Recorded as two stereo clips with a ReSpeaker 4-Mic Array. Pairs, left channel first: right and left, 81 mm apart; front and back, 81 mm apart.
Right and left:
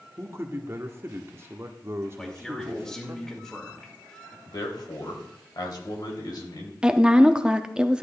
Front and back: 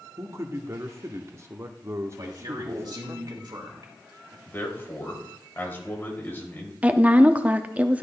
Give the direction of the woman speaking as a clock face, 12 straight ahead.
7 o'clock.